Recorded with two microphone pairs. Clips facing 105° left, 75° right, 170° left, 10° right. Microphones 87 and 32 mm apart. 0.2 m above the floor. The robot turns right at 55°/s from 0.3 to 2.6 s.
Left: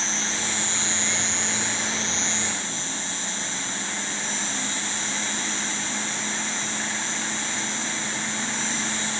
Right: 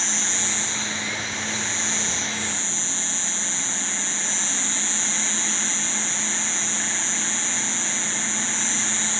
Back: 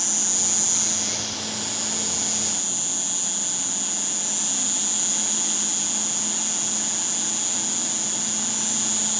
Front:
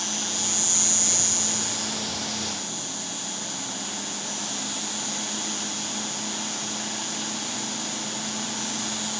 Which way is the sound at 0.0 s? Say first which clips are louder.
Left 1 dB, front 1 dB; 55° left.